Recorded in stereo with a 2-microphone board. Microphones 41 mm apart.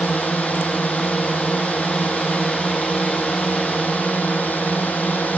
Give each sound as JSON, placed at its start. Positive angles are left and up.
{"t": 0.0, "sound": "a drone", "side_deg": 45}